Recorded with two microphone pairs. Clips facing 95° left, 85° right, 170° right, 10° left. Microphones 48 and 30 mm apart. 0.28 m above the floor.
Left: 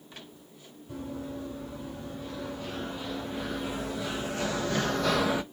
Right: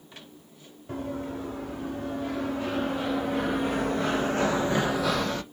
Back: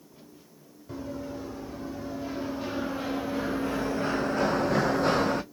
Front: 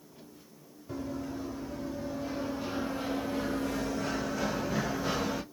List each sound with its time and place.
0.9 s running footsteps: 95° right, 2.5 m; by 5.4 s 165° left, 0.7 m